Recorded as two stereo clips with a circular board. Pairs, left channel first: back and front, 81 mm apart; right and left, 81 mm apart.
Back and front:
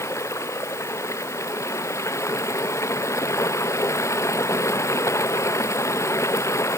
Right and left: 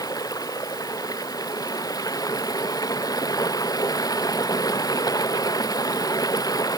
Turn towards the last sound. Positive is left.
turn(degrees=-130)